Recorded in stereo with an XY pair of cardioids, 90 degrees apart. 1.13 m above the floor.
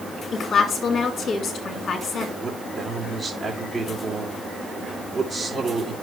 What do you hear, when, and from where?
0.3 s a woman speaking: 55° left, 2 m
2.4 s a man speaking: 25° right, 2.5 m